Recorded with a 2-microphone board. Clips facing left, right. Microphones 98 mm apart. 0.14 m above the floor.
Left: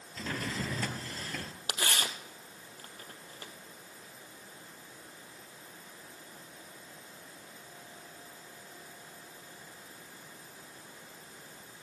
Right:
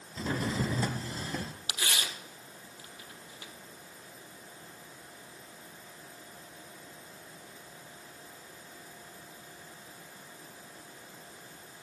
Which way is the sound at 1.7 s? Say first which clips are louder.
Left 3 dB; 45° left (ahead or behind).